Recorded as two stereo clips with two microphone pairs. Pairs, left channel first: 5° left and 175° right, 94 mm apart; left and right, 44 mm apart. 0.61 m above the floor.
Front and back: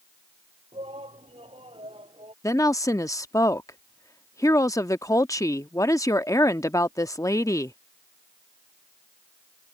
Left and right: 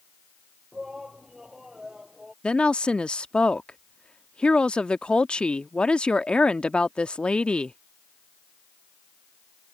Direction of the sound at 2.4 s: 35° left.